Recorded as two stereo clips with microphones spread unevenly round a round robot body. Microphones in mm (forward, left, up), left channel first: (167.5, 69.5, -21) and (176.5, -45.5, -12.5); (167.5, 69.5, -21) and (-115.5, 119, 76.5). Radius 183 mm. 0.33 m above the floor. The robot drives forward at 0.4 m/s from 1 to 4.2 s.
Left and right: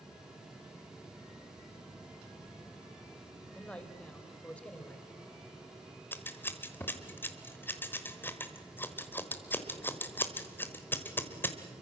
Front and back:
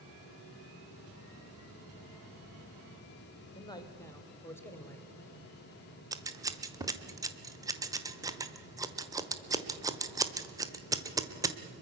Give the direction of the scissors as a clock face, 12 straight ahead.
10 o'clock.